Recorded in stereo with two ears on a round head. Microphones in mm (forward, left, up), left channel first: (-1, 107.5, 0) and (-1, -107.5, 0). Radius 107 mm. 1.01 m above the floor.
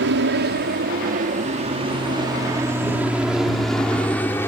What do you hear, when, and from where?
0.0 s an aircraft: 50° right (ahead or behind); by 4.5 s 10° left (ahead or behind)